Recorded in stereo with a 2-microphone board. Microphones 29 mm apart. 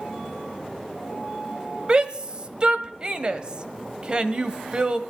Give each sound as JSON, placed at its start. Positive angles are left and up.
{"t": 1.9, "sound": "a shout", "side_deg": -30, "distance_m": 1.0}